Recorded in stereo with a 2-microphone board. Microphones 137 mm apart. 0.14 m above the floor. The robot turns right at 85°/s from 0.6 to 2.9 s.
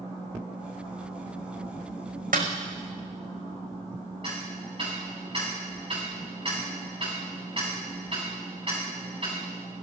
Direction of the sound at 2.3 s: 85° right.